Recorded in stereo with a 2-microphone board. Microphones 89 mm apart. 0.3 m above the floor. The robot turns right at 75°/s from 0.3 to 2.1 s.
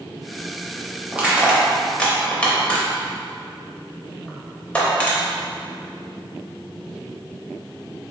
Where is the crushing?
15° right (ahead or behind), 0.8 m; by 5.2 s 15° left (ahead or behind), 0.8 m.